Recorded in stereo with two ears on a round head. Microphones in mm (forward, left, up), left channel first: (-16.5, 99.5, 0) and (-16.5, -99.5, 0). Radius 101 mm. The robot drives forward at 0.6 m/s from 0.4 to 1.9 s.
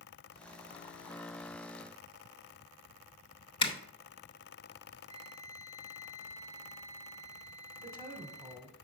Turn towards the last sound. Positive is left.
turn(degrees=-15)  # may be behind; listen again after turning